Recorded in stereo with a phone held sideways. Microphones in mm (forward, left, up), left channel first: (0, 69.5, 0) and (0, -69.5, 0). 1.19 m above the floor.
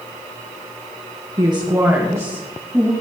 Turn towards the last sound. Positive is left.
turn(degrees=-10)  # may be behind; listen again after turning